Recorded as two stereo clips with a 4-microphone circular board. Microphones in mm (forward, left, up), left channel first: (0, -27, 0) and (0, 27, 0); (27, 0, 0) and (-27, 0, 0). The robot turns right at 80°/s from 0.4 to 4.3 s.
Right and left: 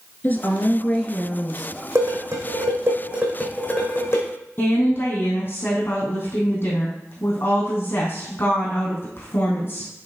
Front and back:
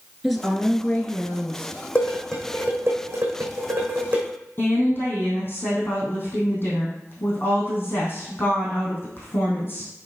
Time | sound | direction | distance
0.2 | a woman speaking | 85° right | 1.2 m
1.9 | dishes clattering | 65° left | 3.5 m
4.6 | a woman speaking | 50° right | 3.5 m